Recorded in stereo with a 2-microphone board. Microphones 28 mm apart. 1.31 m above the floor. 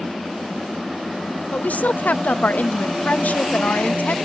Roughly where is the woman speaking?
Left.